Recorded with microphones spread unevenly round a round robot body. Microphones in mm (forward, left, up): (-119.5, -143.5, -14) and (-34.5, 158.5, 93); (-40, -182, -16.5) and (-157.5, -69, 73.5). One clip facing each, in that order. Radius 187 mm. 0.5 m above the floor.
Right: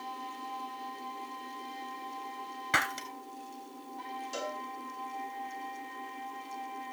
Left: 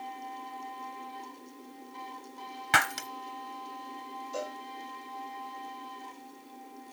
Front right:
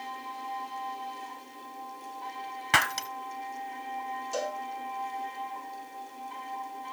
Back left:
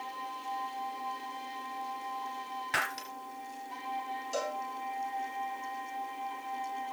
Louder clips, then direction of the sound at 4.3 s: Left 2 dB, front right 2 dB; 120° right.